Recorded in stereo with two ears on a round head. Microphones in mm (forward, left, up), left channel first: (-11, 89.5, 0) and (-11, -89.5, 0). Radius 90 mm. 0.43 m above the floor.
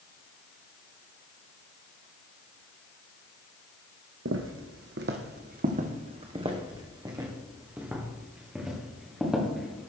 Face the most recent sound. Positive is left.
turn(degrees=0)  # may be behind; listen again after turning